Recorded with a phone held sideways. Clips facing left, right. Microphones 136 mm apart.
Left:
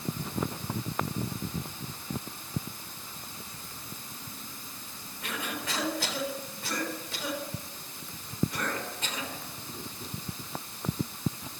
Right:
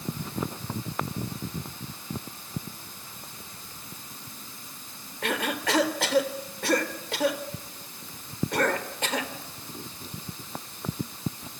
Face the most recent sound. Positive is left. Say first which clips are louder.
# right 8 dB
turn(degrees=-75)  # may be behind; listen again after turning